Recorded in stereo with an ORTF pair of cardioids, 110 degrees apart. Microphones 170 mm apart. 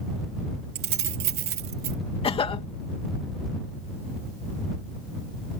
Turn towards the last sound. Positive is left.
turn(degrees=35)